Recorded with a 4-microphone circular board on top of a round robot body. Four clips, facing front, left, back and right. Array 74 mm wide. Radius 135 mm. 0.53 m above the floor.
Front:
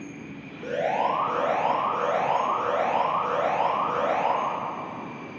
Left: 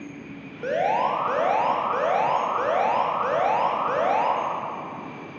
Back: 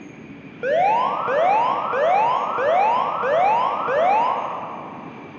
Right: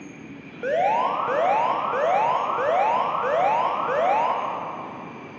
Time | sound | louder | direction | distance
0.6 | an alarm | right 2 dB, back 7 dB | 165° right | 3.5 m